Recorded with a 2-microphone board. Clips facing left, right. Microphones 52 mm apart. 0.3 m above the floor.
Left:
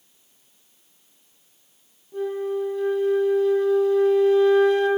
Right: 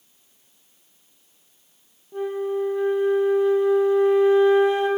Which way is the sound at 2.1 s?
20° right (ahead or behind).